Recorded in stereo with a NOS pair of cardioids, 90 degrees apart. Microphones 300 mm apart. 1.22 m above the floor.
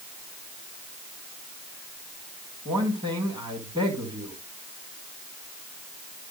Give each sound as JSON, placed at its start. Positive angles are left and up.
{"t": 2.6, "sound": "a man speaking", "azimuth_deg": -15, "distance_m": 5.5}